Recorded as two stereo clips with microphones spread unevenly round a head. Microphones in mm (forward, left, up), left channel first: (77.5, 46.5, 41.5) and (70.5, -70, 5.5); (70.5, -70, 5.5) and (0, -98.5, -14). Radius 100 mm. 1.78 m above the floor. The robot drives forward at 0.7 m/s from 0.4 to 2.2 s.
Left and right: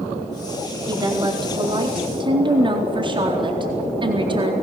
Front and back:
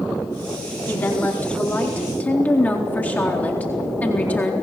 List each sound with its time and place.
0.9 s a woman speaking: 35° right, 4.5 m; by 4.5 s 45° right, 4 m